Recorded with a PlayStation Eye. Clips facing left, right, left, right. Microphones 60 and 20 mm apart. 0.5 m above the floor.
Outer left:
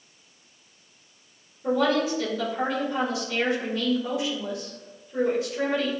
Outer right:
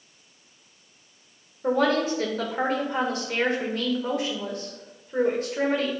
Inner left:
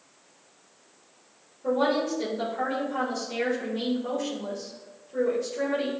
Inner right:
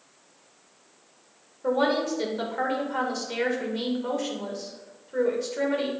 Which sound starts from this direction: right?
A woman speaking, at 1.6 s.